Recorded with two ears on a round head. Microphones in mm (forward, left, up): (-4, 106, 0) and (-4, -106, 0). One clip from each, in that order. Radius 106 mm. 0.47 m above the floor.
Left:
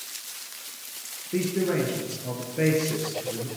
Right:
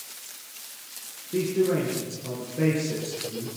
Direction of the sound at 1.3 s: 30° left (ahead or behind).